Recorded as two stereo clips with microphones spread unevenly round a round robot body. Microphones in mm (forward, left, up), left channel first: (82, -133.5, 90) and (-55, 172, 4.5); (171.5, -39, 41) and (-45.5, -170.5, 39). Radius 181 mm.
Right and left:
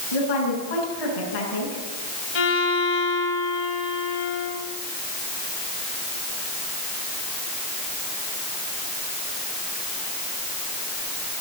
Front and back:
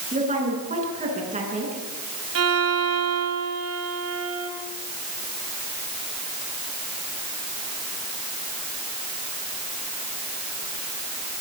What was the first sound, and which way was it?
A woman speaking, 90° right.